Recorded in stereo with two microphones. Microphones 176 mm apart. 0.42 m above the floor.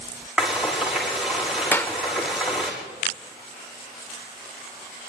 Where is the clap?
10° left (ahead or behind), 0.7 m.